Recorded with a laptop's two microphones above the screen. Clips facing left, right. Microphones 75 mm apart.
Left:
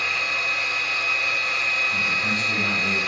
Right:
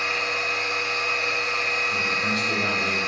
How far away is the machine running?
About 0.8 m.